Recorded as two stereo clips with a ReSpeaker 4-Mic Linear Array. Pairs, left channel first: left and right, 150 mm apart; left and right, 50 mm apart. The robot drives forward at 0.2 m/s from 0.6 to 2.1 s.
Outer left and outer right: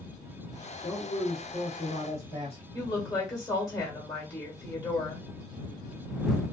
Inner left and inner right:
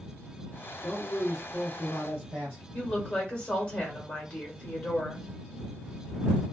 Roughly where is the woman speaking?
Left.